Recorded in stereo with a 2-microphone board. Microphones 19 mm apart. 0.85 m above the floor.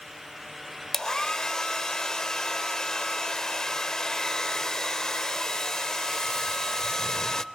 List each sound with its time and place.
0.9 s a hair dryer: 30° left (ahead or behind), 0.6 m